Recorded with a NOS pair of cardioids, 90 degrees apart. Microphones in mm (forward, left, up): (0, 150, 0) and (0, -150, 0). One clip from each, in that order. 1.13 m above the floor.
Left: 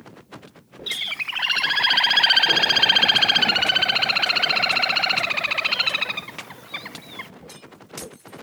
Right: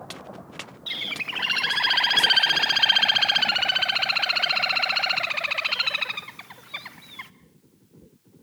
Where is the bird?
15° left, 0.8 m.